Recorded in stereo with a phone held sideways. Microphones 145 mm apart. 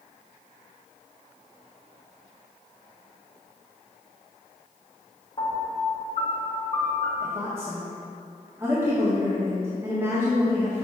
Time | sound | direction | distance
5.4 | a piano | 50° left (ahead or behind) | 1.7 m
7.2 | a woman speaking | 15° right (ahead or behind) | 1.5 m